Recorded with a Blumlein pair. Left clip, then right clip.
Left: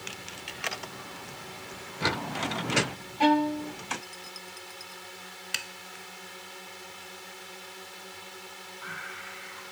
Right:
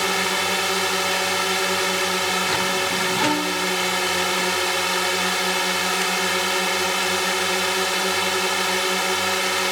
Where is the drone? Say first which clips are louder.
Right 19 dB; 50° right.